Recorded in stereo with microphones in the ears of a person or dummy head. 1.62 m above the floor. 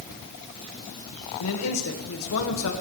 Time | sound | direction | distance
1.4 | a man speaking | 75° left (ahead or behind) | 1.9 m